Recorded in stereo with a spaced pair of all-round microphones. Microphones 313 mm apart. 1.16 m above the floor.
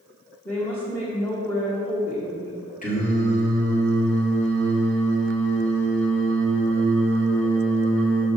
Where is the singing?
25° left (ahead or behind), 2 m.